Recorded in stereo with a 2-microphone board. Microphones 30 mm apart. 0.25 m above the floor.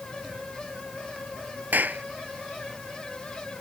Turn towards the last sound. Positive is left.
turn(degrees=-70)  # may be behind; listen again after turning